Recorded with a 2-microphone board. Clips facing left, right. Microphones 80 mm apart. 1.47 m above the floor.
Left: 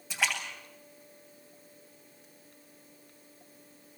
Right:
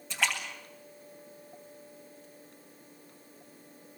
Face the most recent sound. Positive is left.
turn(degrees=5)  # may be behind; listen again after turning